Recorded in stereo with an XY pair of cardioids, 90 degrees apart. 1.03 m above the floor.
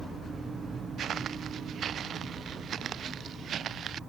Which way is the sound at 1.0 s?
65° right.